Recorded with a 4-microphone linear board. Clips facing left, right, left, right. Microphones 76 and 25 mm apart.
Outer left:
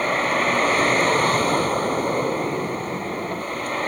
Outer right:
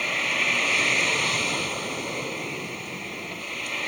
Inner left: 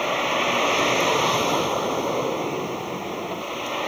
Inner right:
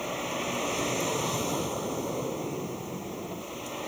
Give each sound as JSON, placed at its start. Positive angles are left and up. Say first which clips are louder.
{"t": 0.0, "sound": "a vehicle", "louder": "outer left 7 dB, inner left 10 dB", "side_deg": 40}